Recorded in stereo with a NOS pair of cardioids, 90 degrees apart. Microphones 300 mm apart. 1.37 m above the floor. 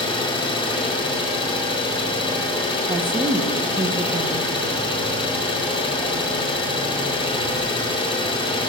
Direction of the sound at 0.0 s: 20° left.